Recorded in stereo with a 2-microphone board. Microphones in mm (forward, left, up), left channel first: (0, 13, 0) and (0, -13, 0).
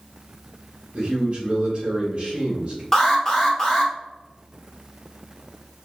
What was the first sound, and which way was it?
A man speaking, 35° right (ahead or behind).